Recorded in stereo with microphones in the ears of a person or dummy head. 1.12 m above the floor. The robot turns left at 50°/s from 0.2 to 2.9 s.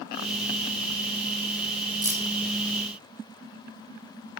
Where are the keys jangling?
25° right (ahead or behind), 3.5 m; by 2.3 s 10° right (ahead or behind), 3.5 m.